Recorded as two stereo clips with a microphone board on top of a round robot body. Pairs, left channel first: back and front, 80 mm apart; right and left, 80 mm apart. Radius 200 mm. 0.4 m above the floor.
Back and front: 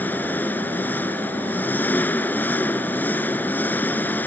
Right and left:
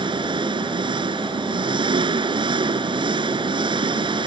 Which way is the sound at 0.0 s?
110° left.